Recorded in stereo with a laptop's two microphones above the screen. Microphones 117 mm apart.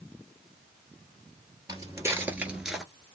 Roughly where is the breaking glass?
No breaking glass in this recording.